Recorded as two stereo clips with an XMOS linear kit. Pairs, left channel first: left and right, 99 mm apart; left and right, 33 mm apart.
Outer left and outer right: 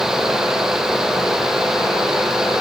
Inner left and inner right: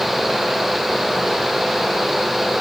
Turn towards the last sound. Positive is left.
No sound to turn to.